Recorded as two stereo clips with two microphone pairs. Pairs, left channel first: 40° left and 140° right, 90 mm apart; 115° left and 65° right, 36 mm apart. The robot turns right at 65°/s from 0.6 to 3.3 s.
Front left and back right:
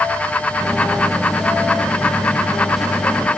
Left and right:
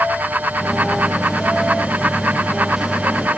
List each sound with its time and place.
Only background noise.